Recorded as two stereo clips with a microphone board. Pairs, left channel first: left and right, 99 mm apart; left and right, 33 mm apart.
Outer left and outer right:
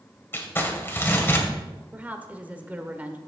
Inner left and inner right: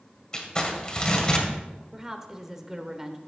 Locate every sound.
0.3 s crumpling: 25° left (ahead or behind), 2 m
1.9 s a woman speaking: 15° right (ahead or behind), 1.2 m